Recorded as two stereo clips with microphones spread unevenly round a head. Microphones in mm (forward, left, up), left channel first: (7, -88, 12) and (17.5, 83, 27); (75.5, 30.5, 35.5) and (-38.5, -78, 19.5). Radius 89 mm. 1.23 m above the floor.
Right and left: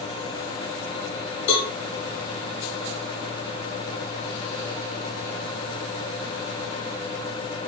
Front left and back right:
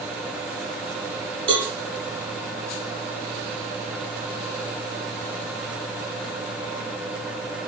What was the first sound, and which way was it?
A cowbell, 130° right.